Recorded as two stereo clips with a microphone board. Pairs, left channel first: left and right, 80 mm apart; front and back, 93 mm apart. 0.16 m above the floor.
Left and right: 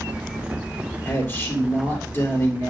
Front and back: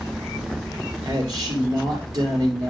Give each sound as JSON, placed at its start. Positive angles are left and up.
{"t": 1.1, "sound": "a man speaking", "azimuth_deg": 145, "distance_m": 3.0}